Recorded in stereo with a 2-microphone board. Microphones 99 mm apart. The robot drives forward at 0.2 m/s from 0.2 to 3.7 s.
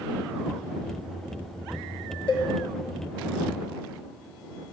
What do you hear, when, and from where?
2.3 s a cowbell: 60° left (ahead or behind), 1.6 m